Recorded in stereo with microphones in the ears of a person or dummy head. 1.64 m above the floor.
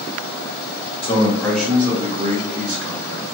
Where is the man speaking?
30° left (ahead or behind), 0.8 m; by 3.2 s 65° right (ahead or behind), 1.3 m.